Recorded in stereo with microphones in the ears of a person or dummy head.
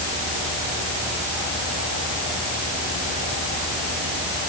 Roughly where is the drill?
I don't hear a drill.